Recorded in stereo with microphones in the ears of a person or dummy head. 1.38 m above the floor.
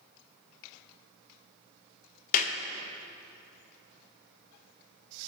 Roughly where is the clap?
Left.